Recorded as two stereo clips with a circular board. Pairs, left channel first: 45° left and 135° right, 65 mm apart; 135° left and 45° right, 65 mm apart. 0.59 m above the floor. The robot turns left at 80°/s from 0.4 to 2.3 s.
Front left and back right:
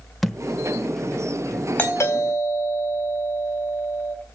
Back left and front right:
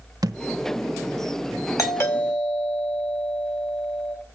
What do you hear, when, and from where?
0.2 s a thud: 45° right, 0.7 m; by 1.6 s 145° right, 0.7 m
1.8 s a doorbell: 105° left, 4 m; by 4.2 s 65° left, 4 m